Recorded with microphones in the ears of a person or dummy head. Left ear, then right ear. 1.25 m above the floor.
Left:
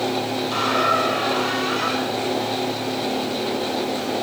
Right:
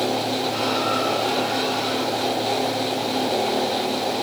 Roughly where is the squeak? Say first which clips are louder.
Left 6 dB; left.